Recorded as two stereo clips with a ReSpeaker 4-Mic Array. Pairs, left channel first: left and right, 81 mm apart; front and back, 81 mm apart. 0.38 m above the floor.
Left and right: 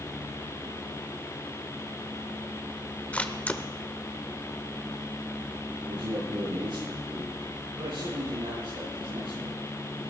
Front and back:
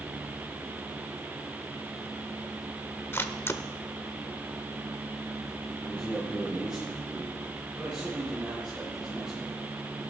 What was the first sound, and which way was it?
A camera shutter, 30° left.